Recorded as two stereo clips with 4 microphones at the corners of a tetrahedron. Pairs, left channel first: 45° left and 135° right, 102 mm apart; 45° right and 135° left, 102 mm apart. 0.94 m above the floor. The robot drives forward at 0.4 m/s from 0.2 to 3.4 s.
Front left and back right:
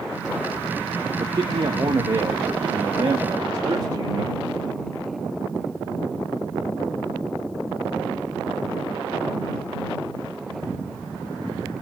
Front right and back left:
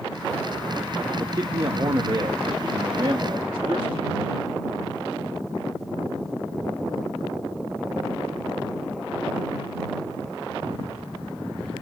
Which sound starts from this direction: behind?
A man speaking, at 1.2 s.